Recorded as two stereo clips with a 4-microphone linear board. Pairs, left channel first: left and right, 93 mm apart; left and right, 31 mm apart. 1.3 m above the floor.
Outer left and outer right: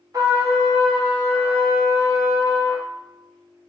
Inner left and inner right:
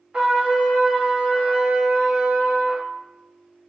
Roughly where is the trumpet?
Right.